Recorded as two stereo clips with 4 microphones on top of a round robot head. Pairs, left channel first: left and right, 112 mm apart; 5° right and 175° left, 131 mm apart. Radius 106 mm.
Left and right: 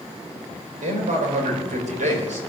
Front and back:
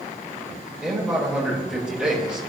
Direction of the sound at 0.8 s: 100° right.